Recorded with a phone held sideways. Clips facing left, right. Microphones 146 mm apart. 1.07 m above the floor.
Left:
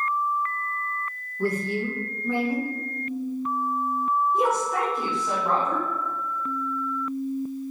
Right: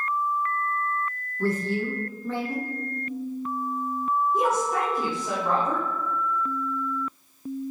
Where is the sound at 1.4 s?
15° left (ahead or behind), 1.3 m.